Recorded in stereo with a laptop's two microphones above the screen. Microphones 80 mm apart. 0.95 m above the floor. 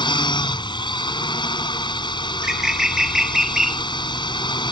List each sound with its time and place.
0.0 s a drone: 80° left
2.3 s a bird: 10° right (ahead or behind)